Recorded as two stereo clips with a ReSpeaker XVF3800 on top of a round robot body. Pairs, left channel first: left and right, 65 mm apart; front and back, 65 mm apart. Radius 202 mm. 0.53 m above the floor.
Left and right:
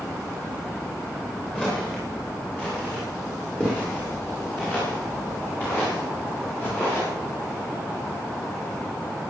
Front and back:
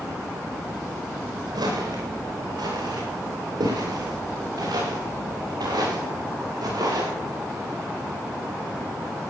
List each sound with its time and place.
1.6 s footsteps: 165° left, 7 m; by 7.1 s 155° left, 10.5 m